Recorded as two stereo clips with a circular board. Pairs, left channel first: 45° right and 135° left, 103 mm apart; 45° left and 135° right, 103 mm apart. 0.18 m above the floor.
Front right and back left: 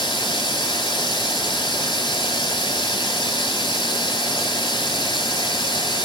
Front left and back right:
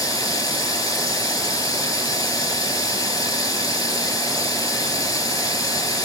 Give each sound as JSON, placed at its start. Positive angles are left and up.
{"t": 0.0, "sound": "running water", "azimuth_deg": -10, "distance_m": 0.8}